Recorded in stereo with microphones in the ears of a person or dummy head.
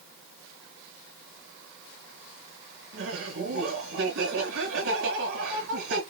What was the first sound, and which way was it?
Laughter, 75° right (ahead or behind).